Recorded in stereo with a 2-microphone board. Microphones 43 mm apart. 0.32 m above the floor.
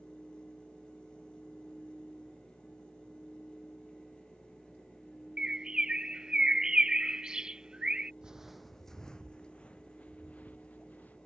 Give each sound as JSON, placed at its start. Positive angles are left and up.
{"t": 5.4, "sound": "a bird", "side_deg": -20}
{"t": 8.2, "sound": "footsteps", "side_deg": -20}